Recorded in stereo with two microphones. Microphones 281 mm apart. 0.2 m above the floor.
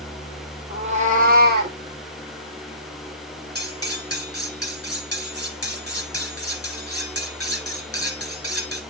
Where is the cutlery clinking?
55° left (ahead or behind), 2 m.